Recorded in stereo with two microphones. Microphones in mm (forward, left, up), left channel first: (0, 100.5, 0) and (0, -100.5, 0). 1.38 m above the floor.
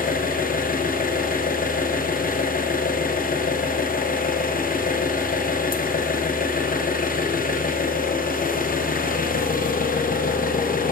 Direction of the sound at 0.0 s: 45° left (ahead or behind).